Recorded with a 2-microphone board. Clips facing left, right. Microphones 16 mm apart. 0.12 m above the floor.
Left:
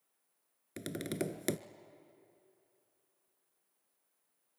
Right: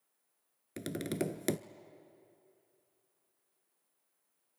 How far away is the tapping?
About 0.7 m.